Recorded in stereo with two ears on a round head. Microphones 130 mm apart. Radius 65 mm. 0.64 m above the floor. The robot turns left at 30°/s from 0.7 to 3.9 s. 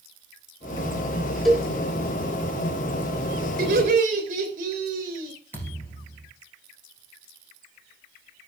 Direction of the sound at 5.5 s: 15° left (ahead or behind).